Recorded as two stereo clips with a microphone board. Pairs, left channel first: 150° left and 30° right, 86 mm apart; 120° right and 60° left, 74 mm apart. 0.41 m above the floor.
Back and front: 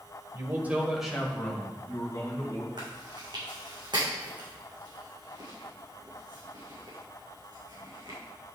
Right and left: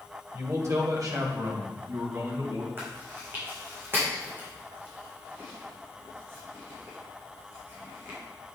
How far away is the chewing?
About 4 m.